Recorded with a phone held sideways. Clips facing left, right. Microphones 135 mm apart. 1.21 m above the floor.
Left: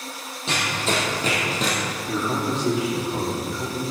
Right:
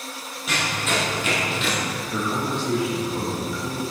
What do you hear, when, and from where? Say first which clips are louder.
0.5 s running footsteps: left 1 dB; 30° left (ahead or behind), 3 m; by 1.8 s 40° left (ahead or behind), 2.5 m
2.1 s a man speaking: left 2 dB; 75° left (ahead or behind), 2.5 m